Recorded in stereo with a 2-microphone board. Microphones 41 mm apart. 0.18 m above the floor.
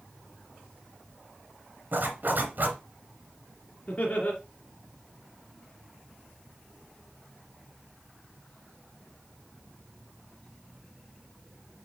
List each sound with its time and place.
1.9 s a zipper: 50° right (ahead or behind), 2.5 m
3.9 s laughter: 40° left (ahead or behind), 2.5 m